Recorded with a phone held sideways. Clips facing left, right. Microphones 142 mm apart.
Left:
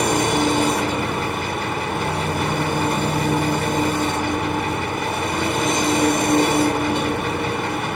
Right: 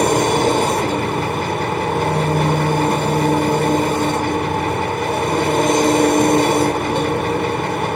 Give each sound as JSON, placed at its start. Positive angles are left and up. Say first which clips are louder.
{"t": 0.0, "sound": "an engine running", "louder": "right 4 dB", "side_deg": -55, "distance_m": 1.5}